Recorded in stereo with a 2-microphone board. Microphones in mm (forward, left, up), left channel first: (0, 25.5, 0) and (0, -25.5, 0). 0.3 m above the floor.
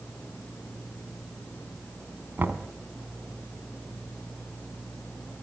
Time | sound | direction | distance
2.4 | knocking | 45° right (ahead or behind) | 1.8 m